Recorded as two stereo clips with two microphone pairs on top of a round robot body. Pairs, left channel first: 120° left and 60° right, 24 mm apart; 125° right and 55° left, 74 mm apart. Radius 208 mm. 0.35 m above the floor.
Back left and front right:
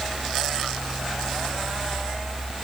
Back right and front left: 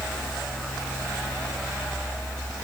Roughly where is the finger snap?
I don't hear a finger snap.